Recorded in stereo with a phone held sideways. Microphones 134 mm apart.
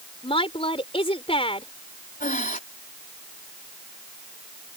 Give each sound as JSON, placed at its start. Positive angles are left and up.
{"t": 0.2, "sound": "a woman speaking", "side_deg": 45}
{"t": 2.2, "sound": "breathing", "side_deg": 80}